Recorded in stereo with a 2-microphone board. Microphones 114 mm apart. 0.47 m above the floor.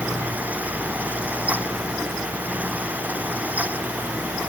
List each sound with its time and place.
Only background noise.